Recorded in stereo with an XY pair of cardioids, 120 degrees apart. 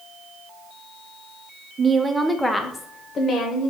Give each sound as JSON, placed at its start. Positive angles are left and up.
{"t": 1.8, "sound": "a woman speaking", "azimuth_deg": -30, "distance_m": 0.6}